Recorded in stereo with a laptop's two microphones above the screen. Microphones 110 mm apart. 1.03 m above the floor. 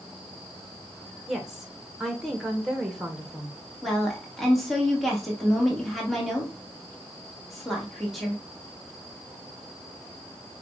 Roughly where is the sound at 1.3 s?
Centre.